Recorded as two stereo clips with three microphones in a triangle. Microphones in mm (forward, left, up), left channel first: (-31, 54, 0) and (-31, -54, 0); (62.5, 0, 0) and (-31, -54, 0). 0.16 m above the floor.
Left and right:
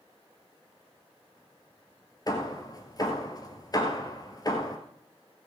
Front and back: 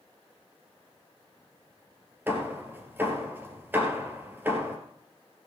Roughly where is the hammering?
Behind left.